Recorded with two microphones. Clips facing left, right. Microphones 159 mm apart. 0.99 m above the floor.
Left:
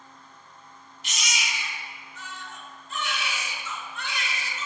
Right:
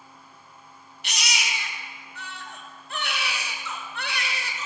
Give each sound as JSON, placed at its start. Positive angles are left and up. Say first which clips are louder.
{"t": 1.0, "sound": "a baby crying", "louder": "right 2 dB", "side_deg": -65, "distance_m": 1.2}